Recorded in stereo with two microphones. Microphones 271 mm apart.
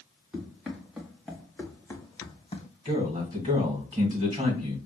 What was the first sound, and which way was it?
Running footsteps, 5° right (ahead or behind).